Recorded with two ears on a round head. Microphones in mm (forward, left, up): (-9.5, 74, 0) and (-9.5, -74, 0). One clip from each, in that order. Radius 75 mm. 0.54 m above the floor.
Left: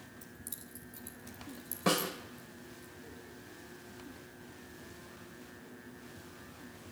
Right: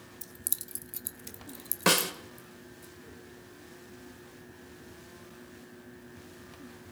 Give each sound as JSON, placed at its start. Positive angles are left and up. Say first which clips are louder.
{"t": 0.2, "sound": "keys jangling", "louder": "right 8 dB", "side_deg": -45, "distance_m": 0.9}
{"t": 1.9, "sound": "a snare drum", "louder": "right 6 dB", "side_deg": -60, "distance_m": 1.5}